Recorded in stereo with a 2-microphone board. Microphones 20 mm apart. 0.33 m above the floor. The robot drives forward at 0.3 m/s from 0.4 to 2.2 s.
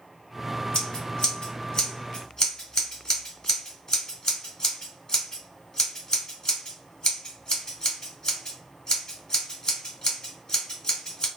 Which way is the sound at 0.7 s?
45° left (ahead or behind).